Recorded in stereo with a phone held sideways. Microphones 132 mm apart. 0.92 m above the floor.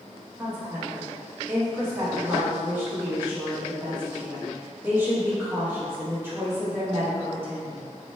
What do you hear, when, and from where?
0.4 s a woman speaking: 20° right (ahead or behind), 1.1 m